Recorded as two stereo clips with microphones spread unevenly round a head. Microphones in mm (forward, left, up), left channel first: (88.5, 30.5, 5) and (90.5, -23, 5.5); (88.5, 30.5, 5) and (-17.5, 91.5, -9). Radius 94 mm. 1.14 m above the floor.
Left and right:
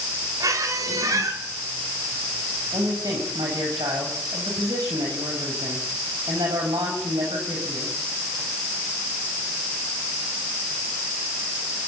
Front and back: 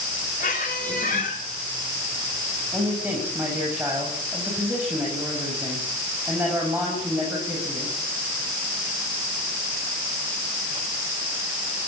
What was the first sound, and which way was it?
A squeak, 80° right.